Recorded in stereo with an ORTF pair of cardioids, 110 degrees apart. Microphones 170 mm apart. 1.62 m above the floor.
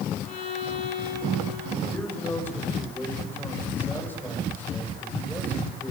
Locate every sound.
0.3 s a violin: 45° left, 7.5 m
1.9 s a man speaking: 10° left, 8 m